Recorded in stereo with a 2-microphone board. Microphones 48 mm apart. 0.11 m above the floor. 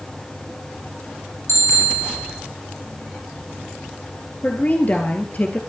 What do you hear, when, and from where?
1.5 s a bicycle bell: 60° left (ahead or behind), 4 m
4.4 s a woman speaking: 35° left (ahead or behind), 2 m